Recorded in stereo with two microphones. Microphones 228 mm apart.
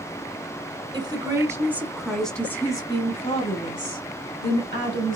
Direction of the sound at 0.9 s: 20° right (ahead or behind).